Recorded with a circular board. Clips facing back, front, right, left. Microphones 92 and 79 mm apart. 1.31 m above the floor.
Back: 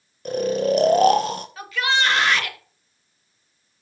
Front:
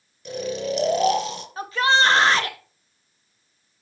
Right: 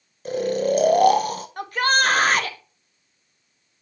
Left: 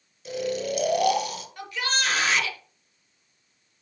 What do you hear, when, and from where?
0.2 s snoring: 135° right, 0.7 m
1.6 s a shout: 55° right, 1.0 m